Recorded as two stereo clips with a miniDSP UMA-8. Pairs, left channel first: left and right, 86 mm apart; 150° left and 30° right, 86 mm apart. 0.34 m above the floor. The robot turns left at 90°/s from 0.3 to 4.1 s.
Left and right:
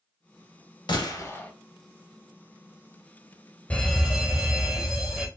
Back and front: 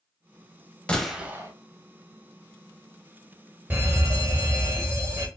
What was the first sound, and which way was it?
A gunshot, 75° left.